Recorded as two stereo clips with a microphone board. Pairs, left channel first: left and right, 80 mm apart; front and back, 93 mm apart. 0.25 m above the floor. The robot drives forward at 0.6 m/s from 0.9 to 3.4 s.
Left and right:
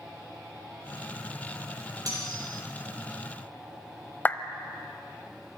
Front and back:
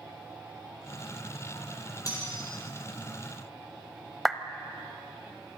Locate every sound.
2.1 s cutlery clinking: 50° right, 5.5 m
4.2 s a clap: 90° left, 0.9 m